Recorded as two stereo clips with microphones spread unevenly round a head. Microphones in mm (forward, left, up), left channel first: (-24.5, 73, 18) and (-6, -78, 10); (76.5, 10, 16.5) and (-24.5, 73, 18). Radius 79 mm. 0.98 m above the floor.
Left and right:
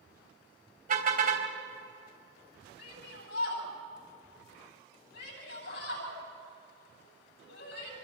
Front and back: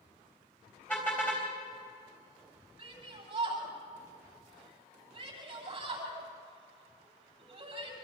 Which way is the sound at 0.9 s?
115° right.